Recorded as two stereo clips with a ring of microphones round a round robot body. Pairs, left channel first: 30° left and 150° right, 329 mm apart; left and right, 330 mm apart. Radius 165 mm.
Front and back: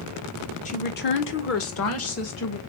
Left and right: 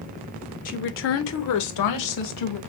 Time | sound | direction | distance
0.7 | a woman speaking | 65° left | 0.6 m